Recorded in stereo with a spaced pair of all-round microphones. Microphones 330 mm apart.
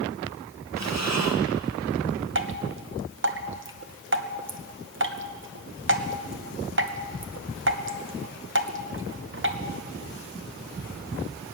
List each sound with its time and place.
0.8 s breathing: 55° right (ahead or behind), 1.3 m
2.4 s dripping: 35° right (ahead or behind), 0.9 m